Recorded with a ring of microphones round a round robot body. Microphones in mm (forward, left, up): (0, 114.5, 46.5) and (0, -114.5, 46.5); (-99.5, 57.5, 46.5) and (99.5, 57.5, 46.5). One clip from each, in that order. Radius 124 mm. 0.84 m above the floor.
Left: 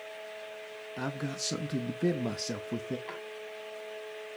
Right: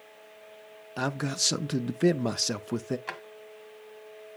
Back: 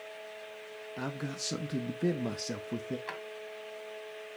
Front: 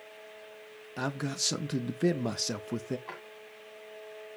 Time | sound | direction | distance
1.0 | a man speaking | 50° right | 0.6 m
3.1 | a drawer | 125° right | 1.6 m